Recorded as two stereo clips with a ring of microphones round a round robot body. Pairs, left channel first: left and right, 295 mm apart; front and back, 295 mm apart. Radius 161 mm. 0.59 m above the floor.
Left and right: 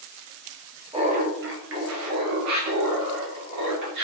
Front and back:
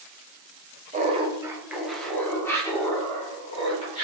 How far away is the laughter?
About 0.7 m.